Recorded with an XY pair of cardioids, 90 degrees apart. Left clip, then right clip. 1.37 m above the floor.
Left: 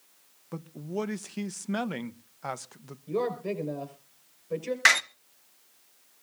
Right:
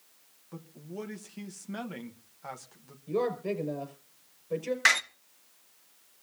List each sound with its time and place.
0.5 s a man speaking: 60° left, 1.0 m
3.1 s a woman speaking: straight ahead, 5.5 m
4.8 s a door slam: 25° left, 0.7 m